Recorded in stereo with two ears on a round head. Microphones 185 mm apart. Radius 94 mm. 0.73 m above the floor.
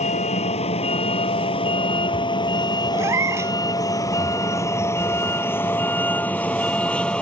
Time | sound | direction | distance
0.0 | a vehicle | 35° left (ahead or behind) | ?
2.9 | a cat meowing | 15° right (ahead or behind) | ?